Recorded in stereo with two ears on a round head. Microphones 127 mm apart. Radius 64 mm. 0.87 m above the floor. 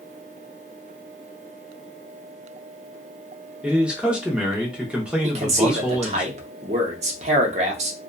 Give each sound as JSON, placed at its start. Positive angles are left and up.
{"t": 3.6, "sound": "a man speaking", "side_deg": -5, "distance_m": 0.7}
{"t": 5.2, "sound": "a man speaking", "side_deg": -50, "distance_m": 0.8}